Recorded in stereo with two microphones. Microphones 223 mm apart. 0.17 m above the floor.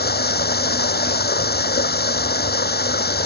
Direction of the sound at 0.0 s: 45° left (ahead or behind).